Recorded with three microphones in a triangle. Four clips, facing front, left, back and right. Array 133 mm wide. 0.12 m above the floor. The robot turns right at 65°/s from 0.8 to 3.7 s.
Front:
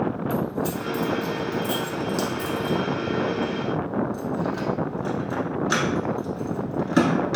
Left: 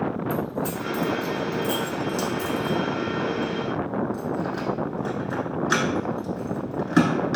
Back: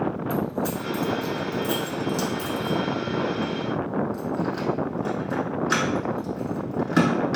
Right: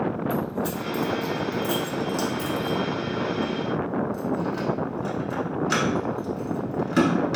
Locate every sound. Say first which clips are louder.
0.3 s keys jangling: even, even; 85° right, 0.8 m; by 7.4 s 105° left, 0.8 m